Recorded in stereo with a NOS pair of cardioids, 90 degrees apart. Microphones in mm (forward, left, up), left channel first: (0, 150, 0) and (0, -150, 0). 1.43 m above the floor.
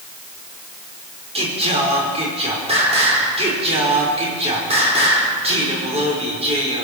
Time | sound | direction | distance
1.4 | singing | 20° right | 5 m